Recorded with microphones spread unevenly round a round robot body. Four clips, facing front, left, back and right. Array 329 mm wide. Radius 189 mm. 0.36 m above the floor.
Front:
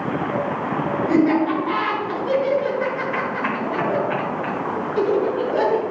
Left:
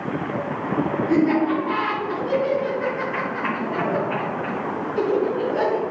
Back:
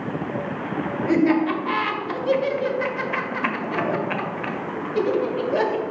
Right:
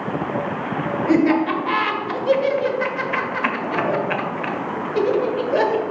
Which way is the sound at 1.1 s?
120° right.